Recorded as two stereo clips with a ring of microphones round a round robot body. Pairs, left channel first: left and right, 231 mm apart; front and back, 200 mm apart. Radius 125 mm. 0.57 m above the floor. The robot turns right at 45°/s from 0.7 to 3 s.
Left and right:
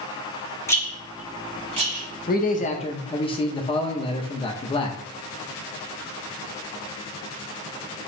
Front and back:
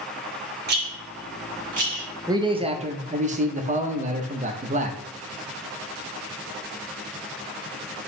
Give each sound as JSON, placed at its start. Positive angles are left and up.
{"t": 0.7, "sound": "a rattle", "azimuth_deg": 165, "distance_m": 1.9}
{"t": 2.3, "sound": "a man speaking", "azimuth_deg": 115, "distance_m": 0.8}